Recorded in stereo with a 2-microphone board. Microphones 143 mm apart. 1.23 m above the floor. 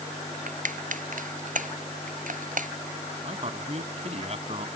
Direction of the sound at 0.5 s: 65° right (ahead or behind).